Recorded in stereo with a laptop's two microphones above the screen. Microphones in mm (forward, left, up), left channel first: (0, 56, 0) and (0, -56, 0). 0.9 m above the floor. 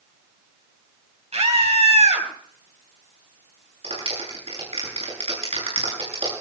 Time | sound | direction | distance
1.3 | a scream | 80° right | 5 m
3.8 | a clap | 70° right (ahead or behind) | 9.5 m